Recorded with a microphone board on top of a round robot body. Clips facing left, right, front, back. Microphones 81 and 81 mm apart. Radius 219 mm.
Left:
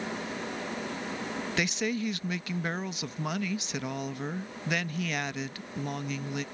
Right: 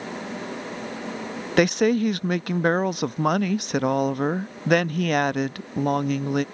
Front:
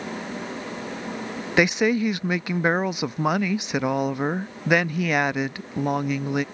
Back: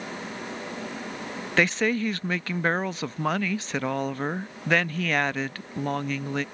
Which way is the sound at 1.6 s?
75° right.